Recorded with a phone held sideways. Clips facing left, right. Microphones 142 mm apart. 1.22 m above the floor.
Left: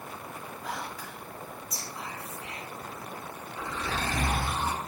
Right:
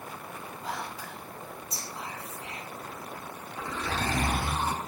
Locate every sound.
0.6 s whispering: 30° right (ahead or behind), 0.7 m
3.6 s a zipper: 50° right (ahead or behind), 0.9 m